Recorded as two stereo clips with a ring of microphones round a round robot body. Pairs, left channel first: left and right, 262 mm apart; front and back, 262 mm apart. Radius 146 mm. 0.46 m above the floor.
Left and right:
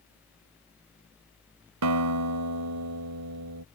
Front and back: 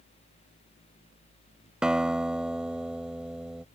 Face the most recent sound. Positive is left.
turn(degrees=-95)